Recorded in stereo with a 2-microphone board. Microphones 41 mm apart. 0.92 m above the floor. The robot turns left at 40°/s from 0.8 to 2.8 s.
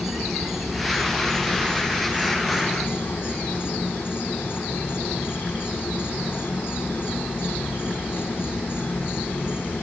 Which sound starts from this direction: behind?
An insect, at 0.0 s.